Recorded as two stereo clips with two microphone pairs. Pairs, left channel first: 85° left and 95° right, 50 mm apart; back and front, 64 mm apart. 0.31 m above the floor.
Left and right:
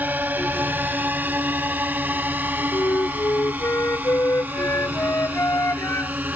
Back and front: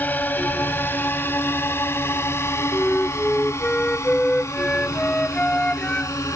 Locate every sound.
0.0 s a drone: 130° right; by 6.4 s 150° right
2.7 s a flute: 110° left